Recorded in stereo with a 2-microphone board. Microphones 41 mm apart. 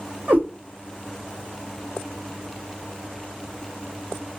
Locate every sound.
0.3 s a cat meowing: 40° right (ahead or behind), 1.7 m